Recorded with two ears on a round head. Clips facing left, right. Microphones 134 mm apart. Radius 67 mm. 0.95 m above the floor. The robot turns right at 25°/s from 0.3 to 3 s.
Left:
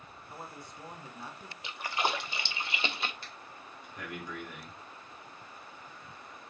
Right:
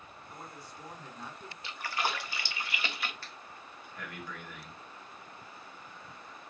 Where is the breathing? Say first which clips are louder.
Even; 15° left (ahead or behind), 1.5 m.